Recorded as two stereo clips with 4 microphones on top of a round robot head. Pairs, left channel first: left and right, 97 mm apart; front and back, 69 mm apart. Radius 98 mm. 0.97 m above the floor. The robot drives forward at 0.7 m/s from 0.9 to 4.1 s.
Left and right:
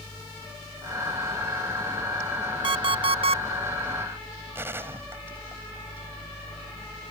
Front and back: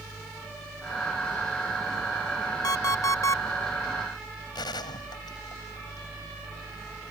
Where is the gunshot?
20° right.